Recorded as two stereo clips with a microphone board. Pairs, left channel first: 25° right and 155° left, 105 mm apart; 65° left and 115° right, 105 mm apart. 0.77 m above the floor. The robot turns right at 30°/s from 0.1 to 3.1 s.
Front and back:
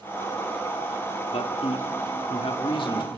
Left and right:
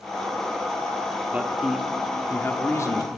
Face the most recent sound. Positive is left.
turn(degrees=15)